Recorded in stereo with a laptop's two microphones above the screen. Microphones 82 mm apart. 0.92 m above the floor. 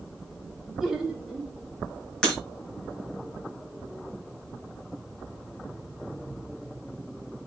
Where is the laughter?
5° right (ahead or behind), 3 m.